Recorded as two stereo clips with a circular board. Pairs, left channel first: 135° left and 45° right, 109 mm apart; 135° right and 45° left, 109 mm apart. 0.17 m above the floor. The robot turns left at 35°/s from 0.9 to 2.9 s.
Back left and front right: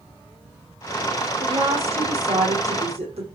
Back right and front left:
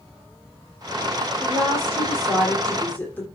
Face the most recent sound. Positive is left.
turn(degrees=-65)